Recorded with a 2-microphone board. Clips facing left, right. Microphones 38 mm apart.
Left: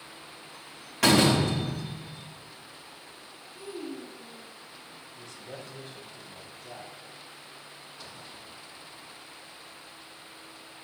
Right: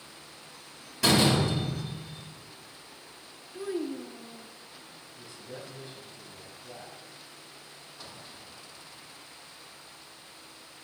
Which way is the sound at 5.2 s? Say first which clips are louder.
Even; 60° left (ahead or behind).